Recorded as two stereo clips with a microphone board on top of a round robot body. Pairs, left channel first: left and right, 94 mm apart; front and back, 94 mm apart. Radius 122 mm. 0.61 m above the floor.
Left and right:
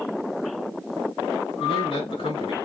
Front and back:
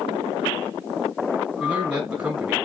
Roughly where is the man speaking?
Left.